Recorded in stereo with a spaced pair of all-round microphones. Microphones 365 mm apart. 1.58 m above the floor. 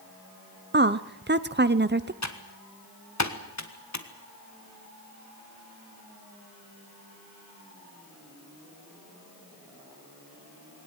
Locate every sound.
0.7 s a woman speaking: 30° right (ahead or behind), 0.6 m
2.2 s typing on a keyboard: 50° left (ahead or behind), 1.6 m